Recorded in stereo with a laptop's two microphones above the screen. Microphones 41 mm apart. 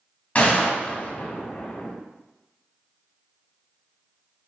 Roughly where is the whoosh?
No whoosh in this recording.